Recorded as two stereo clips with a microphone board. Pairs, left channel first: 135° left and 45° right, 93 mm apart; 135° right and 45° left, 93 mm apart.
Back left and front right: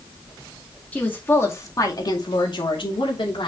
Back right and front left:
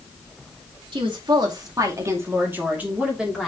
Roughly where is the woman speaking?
Ahead left.